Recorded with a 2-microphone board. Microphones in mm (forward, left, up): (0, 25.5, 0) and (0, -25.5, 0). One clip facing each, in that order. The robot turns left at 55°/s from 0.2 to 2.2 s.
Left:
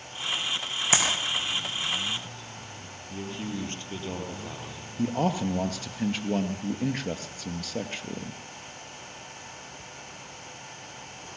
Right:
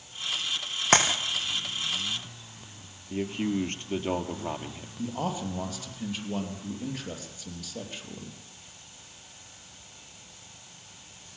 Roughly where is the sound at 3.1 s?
Right.